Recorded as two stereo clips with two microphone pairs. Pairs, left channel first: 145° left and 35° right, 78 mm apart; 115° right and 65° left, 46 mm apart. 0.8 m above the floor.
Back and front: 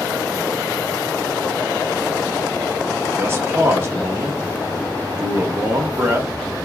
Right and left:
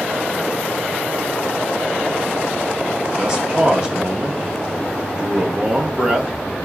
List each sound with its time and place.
3.2 s a man speaking: 5° left, 0.8 m